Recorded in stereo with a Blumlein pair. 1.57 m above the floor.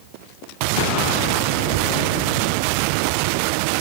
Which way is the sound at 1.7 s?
40° right.